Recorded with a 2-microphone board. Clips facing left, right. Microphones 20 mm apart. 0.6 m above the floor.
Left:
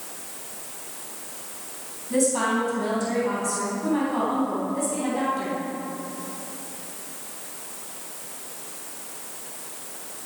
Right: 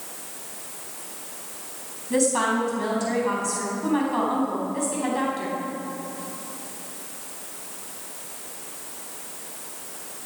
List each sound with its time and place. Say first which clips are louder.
2.1 s a woman speaking: right 1 dB; 30° right (ahead or behind), 4.5 m